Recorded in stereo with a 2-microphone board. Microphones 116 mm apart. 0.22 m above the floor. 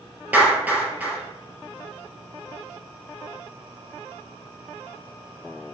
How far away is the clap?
About 3.5 m.